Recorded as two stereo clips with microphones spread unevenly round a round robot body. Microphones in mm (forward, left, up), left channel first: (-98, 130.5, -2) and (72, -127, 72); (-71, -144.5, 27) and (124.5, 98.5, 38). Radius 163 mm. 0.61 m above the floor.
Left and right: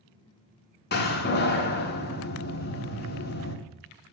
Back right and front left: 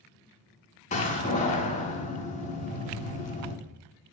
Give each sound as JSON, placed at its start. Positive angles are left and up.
{"t": 0.9, "sound": "a door slam", "azimuth_deg": 165, "distance_m": 1.2}